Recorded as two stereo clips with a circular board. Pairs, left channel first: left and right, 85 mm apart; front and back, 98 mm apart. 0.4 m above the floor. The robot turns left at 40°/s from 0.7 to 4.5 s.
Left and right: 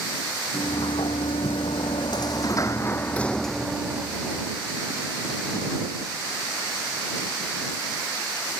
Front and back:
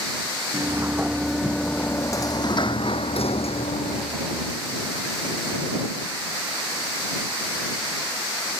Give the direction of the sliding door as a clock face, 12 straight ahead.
8 o'clock.